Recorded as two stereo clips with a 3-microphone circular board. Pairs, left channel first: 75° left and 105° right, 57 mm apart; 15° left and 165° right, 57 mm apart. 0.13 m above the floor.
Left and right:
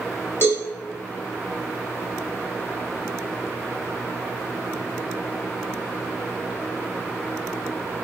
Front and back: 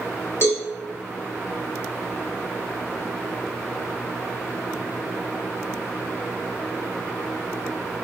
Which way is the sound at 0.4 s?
40° left.